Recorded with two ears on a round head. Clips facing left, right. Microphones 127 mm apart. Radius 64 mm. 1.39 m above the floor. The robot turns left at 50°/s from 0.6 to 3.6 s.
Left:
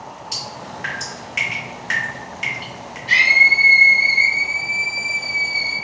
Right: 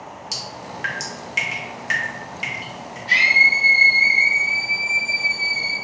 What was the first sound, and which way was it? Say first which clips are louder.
Dripping: left 1 dB; 45° right (ahead or behind).